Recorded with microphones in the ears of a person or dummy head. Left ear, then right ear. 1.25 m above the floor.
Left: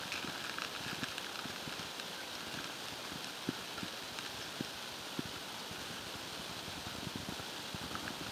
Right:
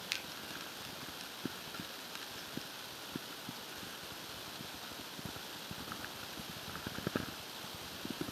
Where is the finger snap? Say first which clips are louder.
Right 3 dB; 40° right (ahead or behind), 1.4 m.